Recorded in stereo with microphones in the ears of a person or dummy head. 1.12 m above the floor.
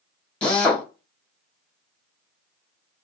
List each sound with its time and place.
0.4 s a drill: 5° left (ahead or behind), 1.0 m